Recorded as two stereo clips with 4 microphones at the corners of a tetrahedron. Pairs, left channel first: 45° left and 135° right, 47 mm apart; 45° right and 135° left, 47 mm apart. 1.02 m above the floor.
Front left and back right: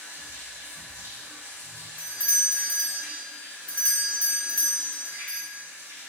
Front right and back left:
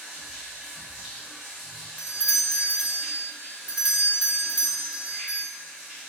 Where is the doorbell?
90° left, 0.8 m.